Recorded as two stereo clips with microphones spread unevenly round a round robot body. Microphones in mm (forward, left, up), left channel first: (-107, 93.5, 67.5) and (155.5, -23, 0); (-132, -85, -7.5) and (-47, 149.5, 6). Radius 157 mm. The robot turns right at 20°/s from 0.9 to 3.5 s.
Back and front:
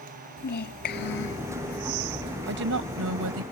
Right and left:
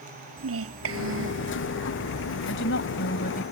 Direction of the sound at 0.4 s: 100° left.